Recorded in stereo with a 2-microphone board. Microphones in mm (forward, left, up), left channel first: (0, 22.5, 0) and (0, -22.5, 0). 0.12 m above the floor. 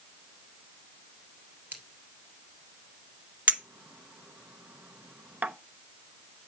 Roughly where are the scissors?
Right.